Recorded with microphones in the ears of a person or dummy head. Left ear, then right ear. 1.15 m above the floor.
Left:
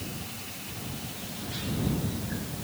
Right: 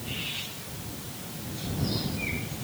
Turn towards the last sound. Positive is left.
No sound to turn to.